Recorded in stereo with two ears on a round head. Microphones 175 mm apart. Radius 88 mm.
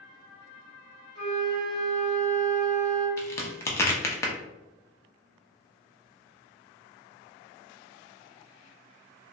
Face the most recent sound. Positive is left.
turn(degrees=15)  # may be behind; listen again after turning